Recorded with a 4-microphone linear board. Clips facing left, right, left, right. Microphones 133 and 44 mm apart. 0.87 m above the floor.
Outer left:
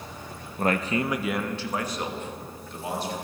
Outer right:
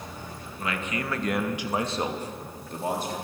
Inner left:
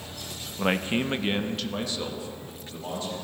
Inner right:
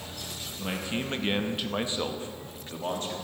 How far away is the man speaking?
About 0.6 m.